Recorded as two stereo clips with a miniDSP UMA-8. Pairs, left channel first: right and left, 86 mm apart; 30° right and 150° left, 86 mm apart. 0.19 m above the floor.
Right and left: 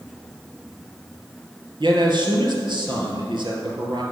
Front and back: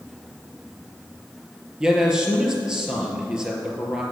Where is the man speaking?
70° left, 3.5 m.